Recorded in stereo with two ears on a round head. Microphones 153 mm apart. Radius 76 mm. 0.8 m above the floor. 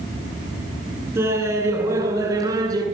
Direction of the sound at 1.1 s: 15° right (ahead or behind).